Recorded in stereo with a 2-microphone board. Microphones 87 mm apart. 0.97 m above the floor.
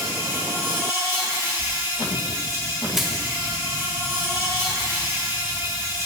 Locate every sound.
0.0 s an insect: 35° right (ahead or behind), 2.5 m
1.6 s a sliding door: 80° right, 2 m
2.9 s crushing: 5° right (ahead or behind), 0.9 m